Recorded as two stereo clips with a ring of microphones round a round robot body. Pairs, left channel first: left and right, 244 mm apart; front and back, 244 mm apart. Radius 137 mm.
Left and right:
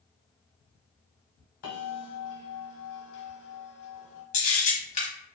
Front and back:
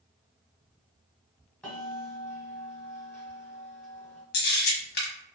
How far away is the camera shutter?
About 1.2 m.